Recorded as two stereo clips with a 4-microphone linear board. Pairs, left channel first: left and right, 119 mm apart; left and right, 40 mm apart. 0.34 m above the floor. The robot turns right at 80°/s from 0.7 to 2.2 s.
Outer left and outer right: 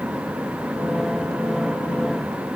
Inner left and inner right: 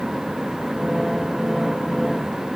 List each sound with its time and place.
Only background noise.